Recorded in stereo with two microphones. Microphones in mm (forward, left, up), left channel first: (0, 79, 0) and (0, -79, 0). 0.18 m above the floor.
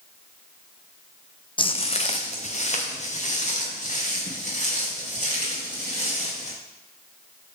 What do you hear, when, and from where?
1.6 s footsteps: 35° left (ahead or behind), 0.5 m; by 6.5 s 50° left (ahead or behind), 6.5 m